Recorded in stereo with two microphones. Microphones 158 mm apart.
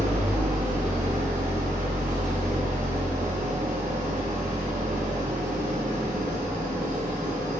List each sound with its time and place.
0.0 s an engine running: 50° right (ahead or behind), 1.4 m